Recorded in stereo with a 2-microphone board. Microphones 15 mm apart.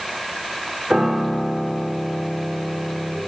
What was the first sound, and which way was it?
A piano, 45° right (ahead or behind).